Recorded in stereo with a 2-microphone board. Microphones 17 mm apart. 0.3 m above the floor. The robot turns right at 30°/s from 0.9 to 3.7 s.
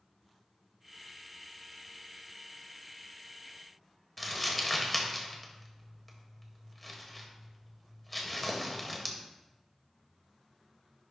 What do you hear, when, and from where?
4.2 s crumpling: 5° left (ahead or behind), 1.2 m